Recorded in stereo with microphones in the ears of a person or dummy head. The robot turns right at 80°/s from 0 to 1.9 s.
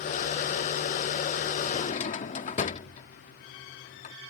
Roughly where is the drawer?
Left.